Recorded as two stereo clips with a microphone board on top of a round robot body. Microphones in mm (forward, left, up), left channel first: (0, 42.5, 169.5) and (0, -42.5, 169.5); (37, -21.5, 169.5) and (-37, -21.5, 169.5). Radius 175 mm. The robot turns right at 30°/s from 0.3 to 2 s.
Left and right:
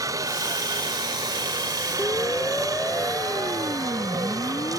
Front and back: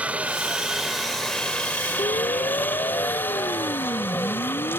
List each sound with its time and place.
0.0 s a helicopter: 115° right; by 4.8 s 55° right
2.0 s a siren: 20° left; by 4.8 s 30° left